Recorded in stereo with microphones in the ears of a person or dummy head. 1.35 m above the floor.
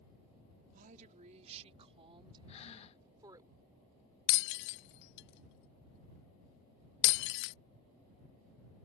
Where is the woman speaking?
40° right (ahead or behind); by 3.5 s 15° right (ahead or behind).